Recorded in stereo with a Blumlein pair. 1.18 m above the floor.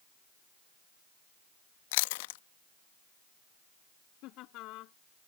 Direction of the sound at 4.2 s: 40° left.